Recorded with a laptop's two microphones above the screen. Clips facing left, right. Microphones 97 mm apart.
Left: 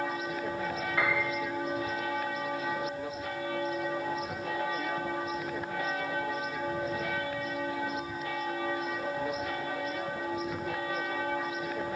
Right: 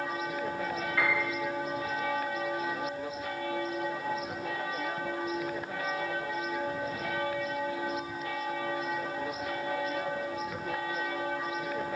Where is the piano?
20° left (ahead or behind), 2.5 m.